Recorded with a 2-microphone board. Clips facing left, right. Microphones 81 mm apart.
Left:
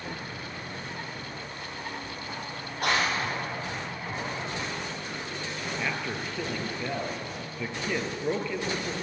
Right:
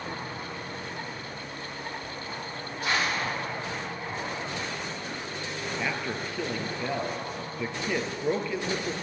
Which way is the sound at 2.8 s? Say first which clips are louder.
Left 1 dB; 65° left (ahead or behind).